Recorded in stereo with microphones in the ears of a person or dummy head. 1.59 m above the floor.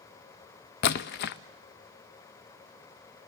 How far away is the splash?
About 0.5 m.